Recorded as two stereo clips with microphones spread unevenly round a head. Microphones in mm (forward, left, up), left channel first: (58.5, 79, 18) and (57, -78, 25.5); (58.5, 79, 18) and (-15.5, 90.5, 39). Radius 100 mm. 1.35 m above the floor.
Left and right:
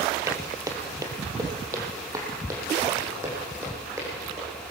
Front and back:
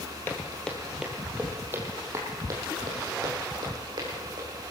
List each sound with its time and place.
0.3 s footsteps: 80° right, 1.4 m; by 4.5 s 170° right, 3.5 m